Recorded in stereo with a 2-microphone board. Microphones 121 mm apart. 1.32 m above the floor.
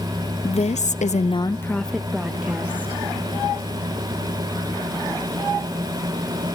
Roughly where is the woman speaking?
Left.